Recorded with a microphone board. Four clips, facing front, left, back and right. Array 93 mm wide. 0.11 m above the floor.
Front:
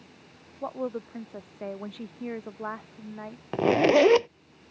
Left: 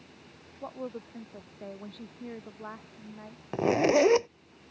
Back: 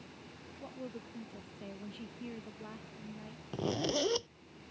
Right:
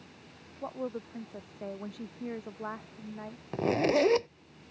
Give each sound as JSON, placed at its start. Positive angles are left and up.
{"t": 0.6, "sound": "a woman speaking", "azimuth_deg": -5}
{"t": 3.5, "sound": "a zipper", "azimuth_deg": 15}